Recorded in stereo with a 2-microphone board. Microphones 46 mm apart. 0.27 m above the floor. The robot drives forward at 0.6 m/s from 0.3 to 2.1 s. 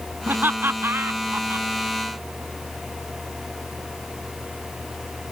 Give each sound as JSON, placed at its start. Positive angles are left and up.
{"t": 0.3, "sound": "laughter", "side_deg": -50}